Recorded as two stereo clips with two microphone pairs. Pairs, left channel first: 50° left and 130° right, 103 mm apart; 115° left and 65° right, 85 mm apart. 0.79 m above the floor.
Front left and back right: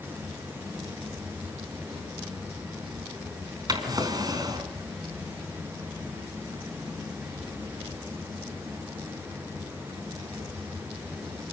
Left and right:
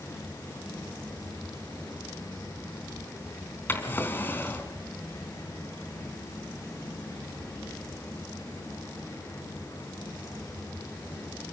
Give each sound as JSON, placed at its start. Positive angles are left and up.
{"t": 3.7, "sound": "a drawer", "azimuth_deg": 180, "distance_m": 3.5}